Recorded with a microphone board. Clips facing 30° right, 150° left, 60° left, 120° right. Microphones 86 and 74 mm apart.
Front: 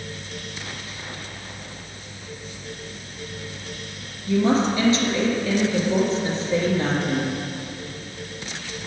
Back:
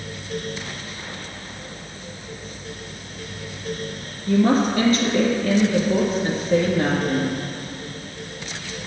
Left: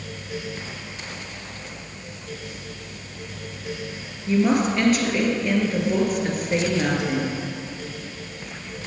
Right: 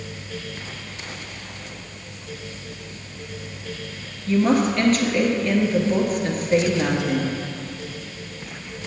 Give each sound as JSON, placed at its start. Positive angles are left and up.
{"t": 4.3, "sound": "a woman speaking", "azimuth_deg": 140, "distance_m": 2.0}